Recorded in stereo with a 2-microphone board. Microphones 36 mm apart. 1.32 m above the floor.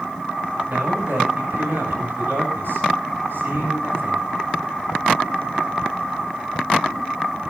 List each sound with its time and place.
0.7 s a man speaking: 70° right (ahead or behind), 9.5 m